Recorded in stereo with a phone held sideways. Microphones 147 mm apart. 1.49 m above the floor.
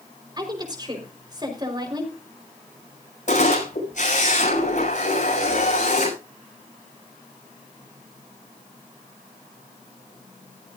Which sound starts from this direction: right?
A woman speaking, at 0.4 s.